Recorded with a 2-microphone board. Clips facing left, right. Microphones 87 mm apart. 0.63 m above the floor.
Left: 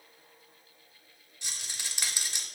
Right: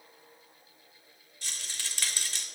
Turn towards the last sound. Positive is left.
turn(degrees=15)  # may be behind; listen again after turning